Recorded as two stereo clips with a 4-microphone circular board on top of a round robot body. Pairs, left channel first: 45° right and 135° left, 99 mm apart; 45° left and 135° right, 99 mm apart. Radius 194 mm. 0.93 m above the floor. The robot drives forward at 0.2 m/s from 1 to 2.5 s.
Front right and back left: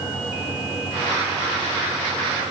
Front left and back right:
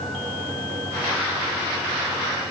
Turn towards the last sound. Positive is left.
No sound to turn to.